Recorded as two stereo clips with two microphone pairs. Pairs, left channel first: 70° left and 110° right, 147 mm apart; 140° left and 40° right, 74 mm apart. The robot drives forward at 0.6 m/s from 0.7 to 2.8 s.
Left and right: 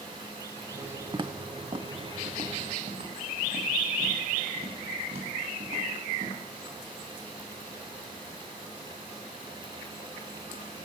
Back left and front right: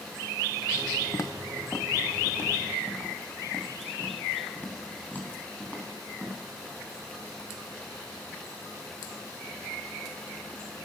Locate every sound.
1.1 s footsteps: 175° right, 0.7 m; by 6.4 s 150° right, 5 m